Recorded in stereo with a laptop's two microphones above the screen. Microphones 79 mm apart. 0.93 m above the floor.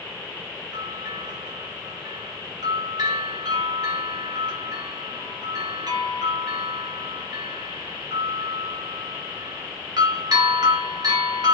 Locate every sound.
0.7 s a bell: 60° right (ahead or behind), 3 m